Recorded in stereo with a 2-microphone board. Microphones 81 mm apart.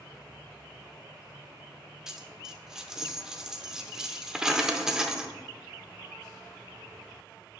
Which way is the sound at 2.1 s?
10° right (ahead or behind).